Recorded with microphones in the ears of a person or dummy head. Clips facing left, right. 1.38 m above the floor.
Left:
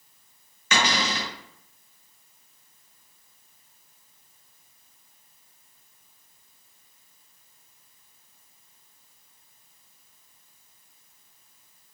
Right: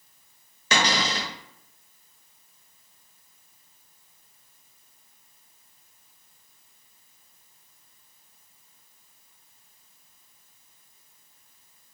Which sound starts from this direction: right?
A cupboard door, at 0.7 s.